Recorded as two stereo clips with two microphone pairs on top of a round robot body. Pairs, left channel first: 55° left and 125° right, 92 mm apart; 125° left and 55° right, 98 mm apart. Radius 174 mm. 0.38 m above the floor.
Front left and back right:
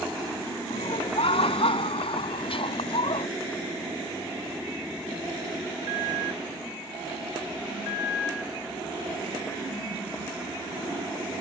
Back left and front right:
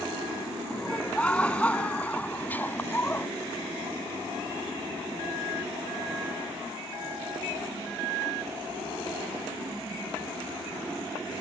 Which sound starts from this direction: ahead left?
Laughter, at 0.7 s.